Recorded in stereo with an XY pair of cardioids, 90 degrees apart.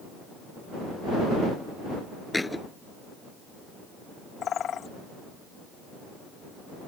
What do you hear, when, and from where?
2.3 s a thud: 15° left
4.4 s a bird: 65° left